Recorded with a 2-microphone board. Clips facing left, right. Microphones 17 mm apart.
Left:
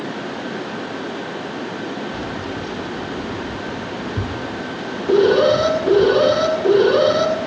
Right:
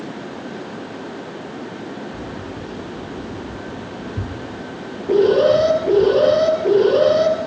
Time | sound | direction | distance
2.1 | keys jangling | 75° left (ahead or behind) | 2 m
5.1 | an alarm | 45° left (ahead or behind) | 9 m